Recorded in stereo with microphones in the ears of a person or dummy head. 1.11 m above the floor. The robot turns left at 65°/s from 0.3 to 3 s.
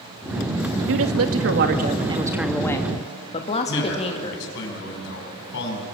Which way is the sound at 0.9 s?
75° right.